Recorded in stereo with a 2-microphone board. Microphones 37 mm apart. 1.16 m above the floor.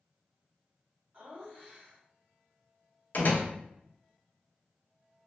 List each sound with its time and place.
1.1 s laughter: 35° right (ahead or behind), 1.8 m
3.1 s a door slam: 50° left (ahead or behind), 0.8 m